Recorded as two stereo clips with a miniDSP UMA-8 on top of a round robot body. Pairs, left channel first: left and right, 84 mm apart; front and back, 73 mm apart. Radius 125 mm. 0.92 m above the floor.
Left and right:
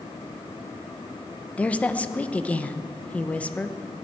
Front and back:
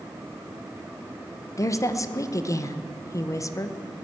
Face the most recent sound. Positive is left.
turn(degrees=20)